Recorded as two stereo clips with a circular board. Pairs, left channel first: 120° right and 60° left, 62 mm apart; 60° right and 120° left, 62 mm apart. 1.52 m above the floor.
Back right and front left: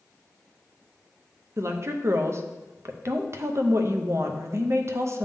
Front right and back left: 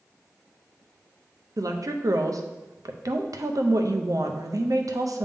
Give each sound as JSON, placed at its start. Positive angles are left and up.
{"t": 1.6, "sound": "a woman speaking", "azimuth_deg": 100, "distance_m": 0.7}